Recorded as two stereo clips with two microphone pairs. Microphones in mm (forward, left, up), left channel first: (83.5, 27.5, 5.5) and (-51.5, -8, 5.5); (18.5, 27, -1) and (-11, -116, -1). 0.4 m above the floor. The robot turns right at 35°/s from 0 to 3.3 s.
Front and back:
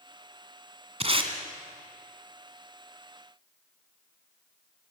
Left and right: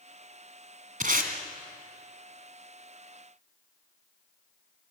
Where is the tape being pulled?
125° right, 2 m; by 1.3 s 115° right, 2 m.